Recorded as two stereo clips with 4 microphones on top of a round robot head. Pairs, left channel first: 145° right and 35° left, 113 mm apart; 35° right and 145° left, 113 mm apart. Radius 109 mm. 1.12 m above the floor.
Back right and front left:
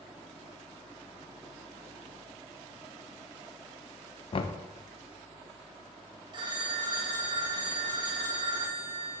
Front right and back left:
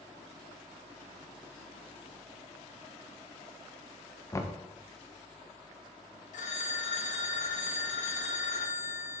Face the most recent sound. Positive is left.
turn(degrees=-15)